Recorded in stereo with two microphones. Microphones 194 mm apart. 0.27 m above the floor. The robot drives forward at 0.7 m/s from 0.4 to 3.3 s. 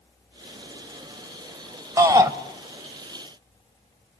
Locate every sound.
2.0 s a shout: 20° right (ahead or behind), 0.9 m